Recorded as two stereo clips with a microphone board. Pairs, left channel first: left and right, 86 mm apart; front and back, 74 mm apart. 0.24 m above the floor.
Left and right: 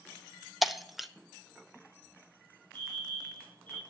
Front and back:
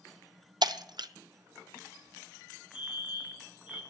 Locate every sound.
0.6 s breaking glass: straight behind, 0.6 m
2.7 s a fire alarm: 110° right, 6 m